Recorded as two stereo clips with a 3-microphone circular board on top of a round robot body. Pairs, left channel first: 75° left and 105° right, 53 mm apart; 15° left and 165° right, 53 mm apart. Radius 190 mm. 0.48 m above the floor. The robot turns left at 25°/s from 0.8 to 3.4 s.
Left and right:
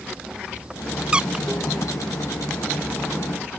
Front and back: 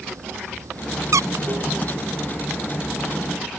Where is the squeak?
175° right; by 1.4 s 175° left.